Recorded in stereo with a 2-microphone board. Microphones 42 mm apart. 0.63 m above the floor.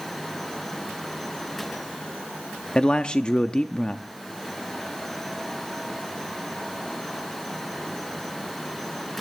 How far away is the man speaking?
About 0.6 m.